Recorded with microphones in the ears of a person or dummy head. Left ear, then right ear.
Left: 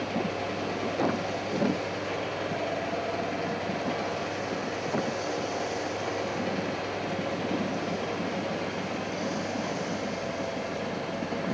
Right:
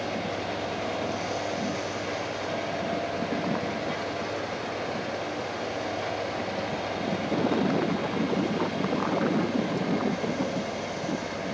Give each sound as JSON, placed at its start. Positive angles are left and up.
{"t": 0.0, "sound": "a fan", "side_deg": 5, "distance_m": 3.0}